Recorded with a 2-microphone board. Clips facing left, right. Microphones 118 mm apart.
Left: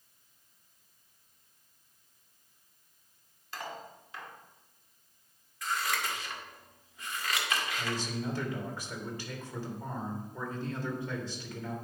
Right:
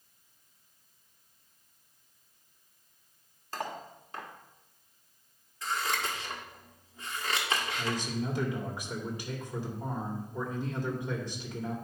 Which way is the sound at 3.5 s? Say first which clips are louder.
Right 4 dB; 45° right (ahead or behind).